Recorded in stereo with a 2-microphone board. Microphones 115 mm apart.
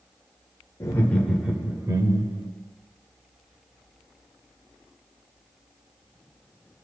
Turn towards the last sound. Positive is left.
turn(degrees=-45)  # may be behind; listen again after turning